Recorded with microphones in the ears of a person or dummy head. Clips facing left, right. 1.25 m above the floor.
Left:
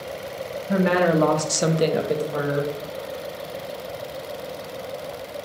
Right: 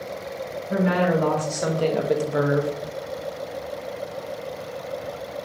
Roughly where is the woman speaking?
Left.